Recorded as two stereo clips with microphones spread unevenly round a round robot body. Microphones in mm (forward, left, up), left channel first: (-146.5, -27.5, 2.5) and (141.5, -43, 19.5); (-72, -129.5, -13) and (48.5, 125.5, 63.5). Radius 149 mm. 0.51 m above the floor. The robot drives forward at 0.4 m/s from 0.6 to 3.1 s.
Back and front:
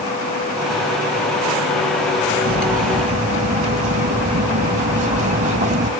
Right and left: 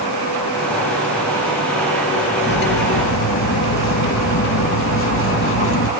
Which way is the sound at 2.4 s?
60° right.